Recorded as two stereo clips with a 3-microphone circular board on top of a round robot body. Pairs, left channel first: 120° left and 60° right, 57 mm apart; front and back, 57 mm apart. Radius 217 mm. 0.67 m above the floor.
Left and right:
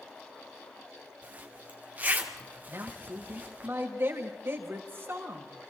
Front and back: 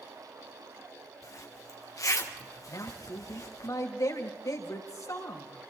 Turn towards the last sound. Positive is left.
turn(degrees=-10)